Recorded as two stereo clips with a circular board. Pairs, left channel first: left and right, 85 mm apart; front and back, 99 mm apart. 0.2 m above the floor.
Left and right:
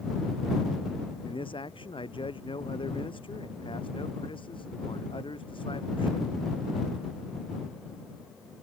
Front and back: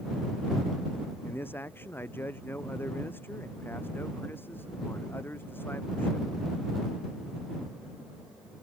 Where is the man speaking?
70° left.